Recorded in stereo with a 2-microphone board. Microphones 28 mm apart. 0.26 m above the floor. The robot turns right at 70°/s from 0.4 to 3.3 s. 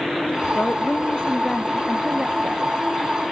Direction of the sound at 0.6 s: 95° left.